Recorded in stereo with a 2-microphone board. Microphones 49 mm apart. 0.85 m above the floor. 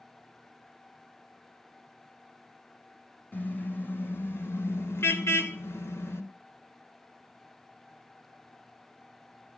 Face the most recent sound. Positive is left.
turn(degrees=70)  # may be behind; listen again after turning